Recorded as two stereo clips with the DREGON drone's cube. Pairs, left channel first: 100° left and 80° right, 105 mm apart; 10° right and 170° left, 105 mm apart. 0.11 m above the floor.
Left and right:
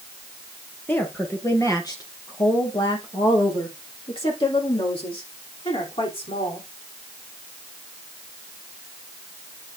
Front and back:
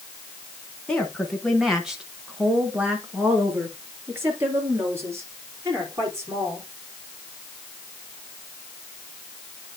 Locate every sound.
0.9 s a woman speaking: 60° left, 1.6 m; by 6.7 s 110° left, 4 m